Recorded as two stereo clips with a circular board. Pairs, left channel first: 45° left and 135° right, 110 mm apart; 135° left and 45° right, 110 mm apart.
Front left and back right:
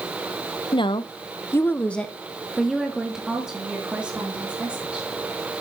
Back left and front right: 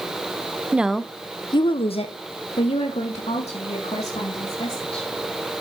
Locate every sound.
0.7 s a woman speaking: 25° left, 0.6 m; by 5.1 s 145° left, 3 m